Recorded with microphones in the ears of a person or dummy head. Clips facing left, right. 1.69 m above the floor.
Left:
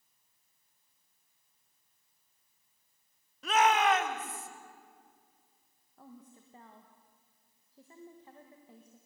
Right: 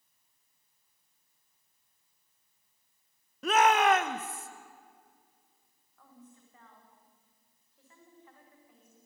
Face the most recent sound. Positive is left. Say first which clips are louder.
# left 3 dB
turn(degrees=25)  # may be behind; listen again after turning